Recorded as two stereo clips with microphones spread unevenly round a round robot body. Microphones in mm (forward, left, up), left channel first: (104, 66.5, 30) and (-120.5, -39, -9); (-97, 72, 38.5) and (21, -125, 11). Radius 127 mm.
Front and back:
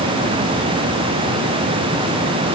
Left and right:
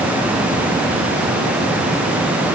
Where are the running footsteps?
No running footsteps in this recording.